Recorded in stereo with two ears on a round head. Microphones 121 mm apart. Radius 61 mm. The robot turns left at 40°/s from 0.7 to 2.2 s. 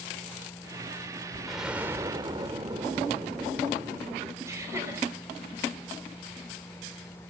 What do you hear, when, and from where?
1.5 s an explosion: centre (ahead or behind), 1.2 m; by 4.3 s 30° right (ahead or behind), 1.2 m
4.4 s laughter: 25° right (ahead or behind), 5.5 m